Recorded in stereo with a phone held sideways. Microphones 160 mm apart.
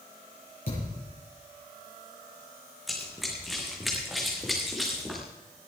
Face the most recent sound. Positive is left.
turn(degrees=0)  # may be behind; listen again after turning